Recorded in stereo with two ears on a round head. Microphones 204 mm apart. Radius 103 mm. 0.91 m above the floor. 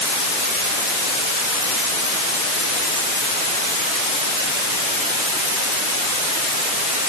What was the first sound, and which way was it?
Only background noise.